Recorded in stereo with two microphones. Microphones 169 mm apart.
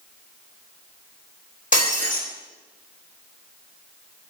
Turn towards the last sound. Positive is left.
turn(degrees=50)  # may be behind; listen again after turning